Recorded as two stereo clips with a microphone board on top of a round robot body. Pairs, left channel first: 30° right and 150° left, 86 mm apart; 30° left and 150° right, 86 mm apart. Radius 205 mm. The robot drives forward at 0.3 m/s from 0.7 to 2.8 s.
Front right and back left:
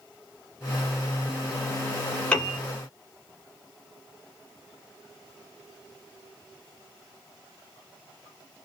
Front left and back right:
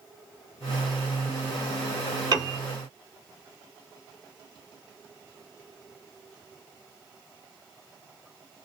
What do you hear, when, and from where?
2.3 s a piano: 110° right, 1.8 m